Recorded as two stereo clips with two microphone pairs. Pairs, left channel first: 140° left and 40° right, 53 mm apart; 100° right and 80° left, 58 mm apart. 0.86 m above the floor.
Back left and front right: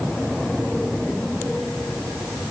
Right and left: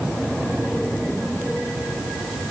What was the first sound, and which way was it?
Only background noise.